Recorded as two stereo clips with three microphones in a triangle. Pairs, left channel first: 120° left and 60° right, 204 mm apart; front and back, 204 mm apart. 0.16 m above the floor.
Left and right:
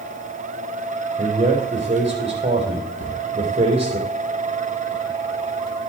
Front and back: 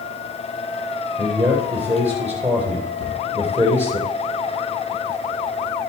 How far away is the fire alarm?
I don't hear a fire alarm.